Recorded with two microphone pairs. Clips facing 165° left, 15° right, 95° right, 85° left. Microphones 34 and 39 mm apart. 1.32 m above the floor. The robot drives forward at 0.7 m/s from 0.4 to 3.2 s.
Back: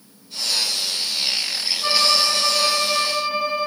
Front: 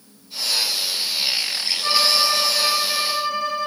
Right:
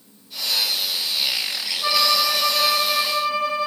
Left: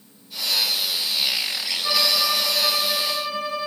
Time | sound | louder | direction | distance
1.8 | a violin | even, right 3 dB | 130° right | 7 m